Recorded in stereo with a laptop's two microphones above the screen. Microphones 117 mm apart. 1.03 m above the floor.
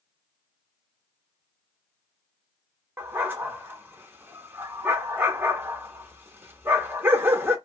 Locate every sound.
3.0 s a dog barking: 20° right (ahead or behind), 0.8 m